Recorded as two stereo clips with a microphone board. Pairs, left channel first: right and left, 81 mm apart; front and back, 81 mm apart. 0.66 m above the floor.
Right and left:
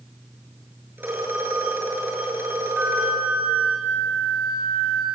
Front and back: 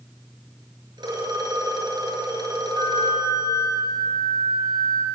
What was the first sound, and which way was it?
A phone ringing, 155° left.